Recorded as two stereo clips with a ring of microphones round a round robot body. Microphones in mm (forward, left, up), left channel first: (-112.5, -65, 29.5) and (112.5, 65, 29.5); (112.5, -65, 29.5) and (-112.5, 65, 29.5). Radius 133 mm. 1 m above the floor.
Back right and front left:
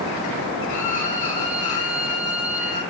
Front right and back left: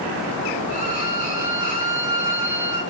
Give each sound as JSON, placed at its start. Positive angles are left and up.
{"t": 0.7, "sound": "a violin", "azimuth_deg": -90, "distance_m": 1.7}